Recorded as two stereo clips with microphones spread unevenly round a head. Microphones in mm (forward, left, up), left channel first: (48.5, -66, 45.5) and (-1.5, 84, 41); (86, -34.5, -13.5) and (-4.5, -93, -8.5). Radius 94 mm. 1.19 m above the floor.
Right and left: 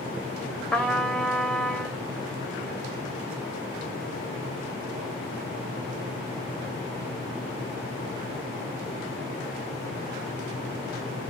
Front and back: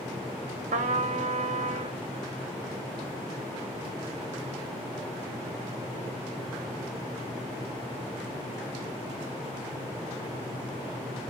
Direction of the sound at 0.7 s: 155° right.